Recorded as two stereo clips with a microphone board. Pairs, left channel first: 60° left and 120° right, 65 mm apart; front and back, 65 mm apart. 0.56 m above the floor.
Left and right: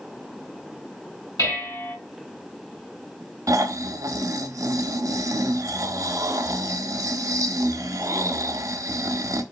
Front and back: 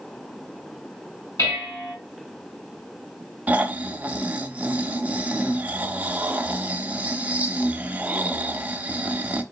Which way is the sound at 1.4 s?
35° left.